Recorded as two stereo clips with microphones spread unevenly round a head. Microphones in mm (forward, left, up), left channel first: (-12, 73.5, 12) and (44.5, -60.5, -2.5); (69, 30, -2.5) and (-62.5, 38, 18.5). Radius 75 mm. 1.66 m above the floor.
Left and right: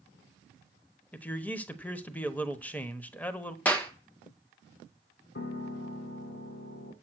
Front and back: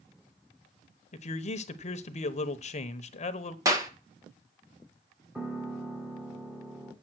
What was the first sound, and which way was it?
A man speaking, 35° left.